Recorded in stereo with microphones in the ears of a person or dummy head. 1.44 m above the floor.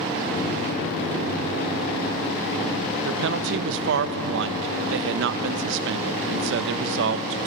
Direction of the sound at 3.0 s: 70° right (ahead or behind).